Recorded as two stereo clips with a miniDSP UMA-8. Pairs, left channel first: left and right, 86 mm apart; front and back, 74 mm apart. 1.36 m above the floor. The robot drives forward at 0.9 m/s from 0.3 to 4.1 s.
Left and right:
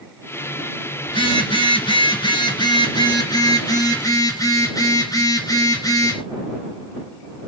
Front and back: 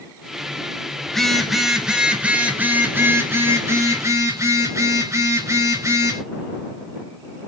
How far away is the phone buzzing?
About 2.5 m.